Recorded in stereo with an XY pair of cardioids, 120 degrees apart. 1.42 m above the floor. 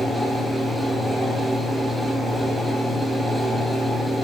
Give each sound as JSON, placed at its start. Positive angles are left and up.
{"t": 0.0, "sound": "a fan", "azimuth_deg": -5, "distance_m": 1.8}